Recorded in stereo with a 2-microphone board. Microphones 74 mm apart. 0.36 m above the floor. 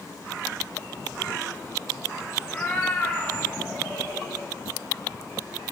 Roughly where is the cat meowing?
Centre.